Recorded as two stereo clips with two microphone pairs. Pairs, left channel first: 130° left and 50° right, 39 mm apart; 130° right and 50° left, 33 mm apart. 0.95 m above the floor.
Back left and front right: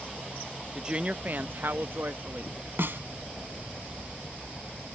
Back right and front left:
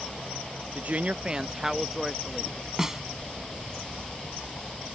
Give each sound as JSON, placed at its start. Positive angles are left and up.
{"t": 0.8, "sound": "a woman speaking", "azimuth_deg": 30}
{"t": 2.8, "sound": "a snare drum", "azimuth_deg": -30}